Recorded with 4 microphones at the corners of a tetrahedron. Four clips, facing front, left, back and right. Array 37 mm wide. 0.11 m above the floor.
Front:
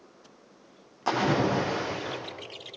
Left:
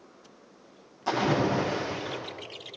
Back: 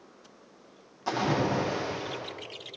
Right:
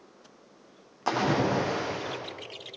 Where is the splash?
50° right, 8.5 m.